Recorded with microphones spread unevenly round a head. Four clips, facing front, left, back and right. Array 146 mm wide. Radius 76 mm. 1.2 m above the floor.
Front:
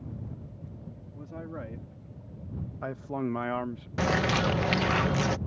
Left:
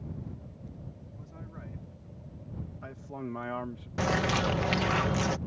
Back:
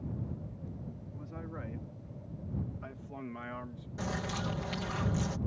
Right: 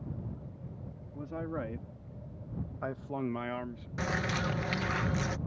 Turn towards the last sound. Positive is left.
turn(degrees=25)